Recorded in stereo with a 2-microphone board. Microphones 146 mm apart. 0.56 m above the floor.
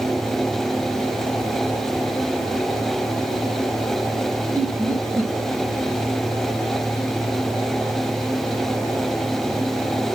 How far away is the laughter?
About 3 m.